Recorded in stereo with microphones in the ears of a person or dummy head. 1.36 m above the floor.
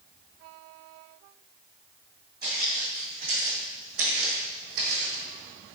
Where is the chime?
No chime in this recording.